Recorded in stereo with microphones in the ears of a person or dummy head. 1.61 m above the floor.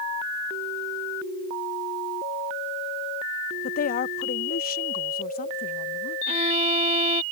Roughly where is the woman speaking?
Left.